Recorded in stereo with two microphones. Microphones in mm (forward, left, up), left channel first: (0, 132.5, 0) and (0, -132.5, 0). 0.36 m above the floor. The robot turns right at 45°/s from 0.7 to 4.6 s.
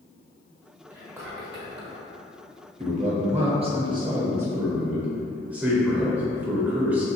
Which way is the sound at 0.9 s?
5° right (ahead or behind).